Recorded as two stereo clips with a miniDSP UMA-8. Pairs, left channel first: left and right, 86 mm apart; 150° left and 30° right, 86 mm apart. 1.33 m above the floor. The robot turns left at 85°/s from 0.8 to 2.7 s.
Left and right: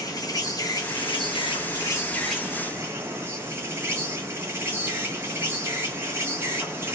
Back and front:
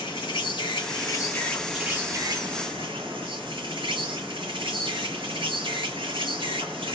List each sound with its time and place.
0.0 s an insect: 135° left, 1.5 m; by 7.0 s 30° right, 1.5 m